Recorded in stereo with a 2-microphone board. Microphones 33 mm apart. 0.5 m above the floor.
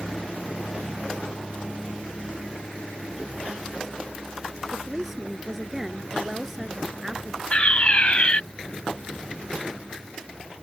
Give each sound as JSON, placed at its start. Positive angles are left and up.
{"t": 4.7, "sound": "a woman speaking", "side_deg": -10}
{"t": 7.5, "sound": "a fire alarm", "side_deg": 35}